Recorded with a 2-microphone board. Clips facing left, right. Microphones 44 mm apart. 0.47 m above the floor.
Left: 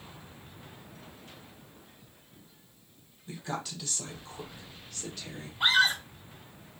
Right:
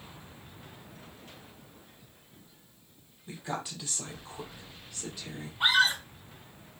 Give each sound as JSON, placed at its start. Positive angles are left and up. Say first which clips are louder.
{"t": 3.3, "sound": "a woman speaking", "louder": "even", "side_deg": -20, "distance_m": 1.5}
{"t": 5.6, "sound": "a scream", "louder": "even", "side_deg": -20, "distance_m": 2.0}